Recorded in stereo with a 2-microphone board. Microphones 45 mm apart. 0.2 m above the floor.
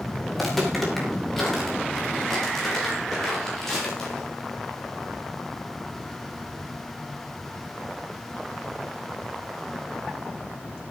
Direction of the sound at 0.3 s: 5° left (ahead or behind).